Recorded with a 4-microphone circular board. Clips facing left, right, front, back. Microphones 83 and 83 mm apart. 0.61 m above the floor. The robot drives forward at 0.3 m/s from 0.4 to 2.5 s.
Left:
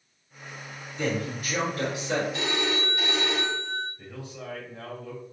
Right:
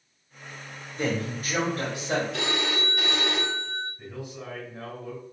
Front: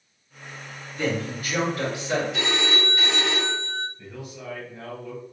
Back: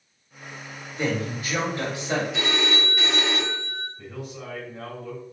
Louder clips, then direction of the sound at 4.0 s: Right 2 dB, back 2 dB; 165° right.